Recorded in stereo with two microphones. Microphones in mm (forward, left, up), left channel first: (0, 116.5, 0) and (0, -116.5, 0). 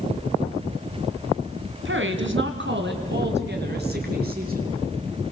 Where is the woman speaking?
55° right (ahead or behind), 2.5 m; by 4.7 s 40° right (ahead or behind), 5 m.